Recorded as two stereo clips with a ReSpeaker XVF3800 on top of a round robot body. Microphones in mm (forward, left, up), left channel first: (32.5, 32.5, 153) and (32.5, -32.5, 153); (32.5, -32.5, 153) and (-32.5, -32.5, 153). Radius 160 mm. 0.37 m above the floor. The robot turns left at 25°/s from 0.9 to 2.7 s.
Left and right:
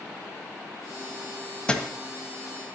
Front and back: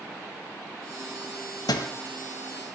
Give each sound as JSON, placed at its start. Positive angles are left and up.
{"t": 1.7, "sound": "a thud", "azimuth_deg": 15, "distance_m": 1.4}